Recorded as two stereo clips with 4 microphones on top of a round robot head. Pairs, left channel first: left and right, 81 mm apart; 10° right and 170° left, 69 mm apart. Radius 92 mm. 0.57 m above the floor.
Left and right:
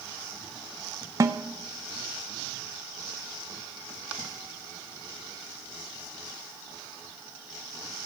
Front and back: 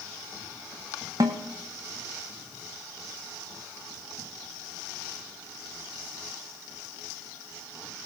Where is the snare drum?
140° right, 0.8 m.